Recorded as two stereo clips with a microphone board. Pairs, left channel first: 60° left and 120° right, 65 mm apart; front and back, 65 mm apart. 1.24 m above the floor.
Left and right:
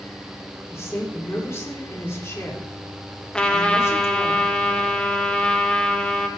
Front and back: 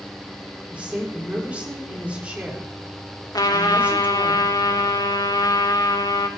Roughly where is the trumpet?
Ahead.